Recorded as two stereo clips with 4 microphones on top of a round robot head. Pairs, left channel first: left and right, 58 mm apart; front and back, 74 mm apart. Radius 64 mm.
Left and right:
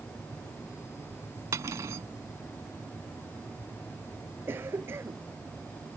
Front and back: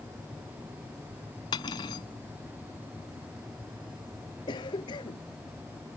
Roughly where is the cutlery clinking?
Ahead right.